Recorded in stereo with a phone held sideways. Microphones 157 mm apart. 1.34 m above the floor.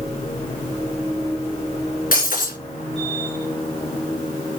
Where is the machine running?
40° left (ahead or behind), 4 m.